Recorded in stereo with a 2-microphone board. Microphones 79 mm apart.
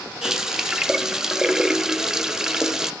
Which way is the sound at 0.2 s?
5° right (ahead or behind).